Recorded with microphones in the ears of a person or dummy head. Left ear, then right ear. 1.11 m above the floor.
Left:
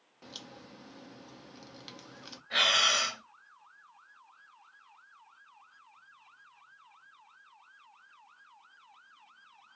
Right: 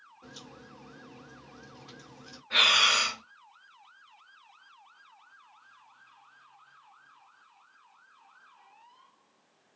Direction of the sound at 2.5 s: 5° left (ahead or behind).